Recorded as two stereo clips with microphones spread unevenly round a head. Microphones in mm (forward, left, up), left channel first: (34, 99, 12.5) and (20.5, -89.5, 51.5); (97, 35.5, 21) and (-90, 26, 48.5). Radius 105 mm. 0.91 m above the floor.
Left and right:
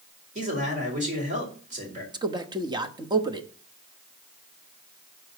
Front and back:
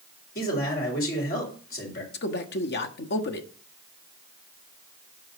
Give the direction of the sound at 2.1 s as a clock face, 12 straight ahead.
1 o'clock.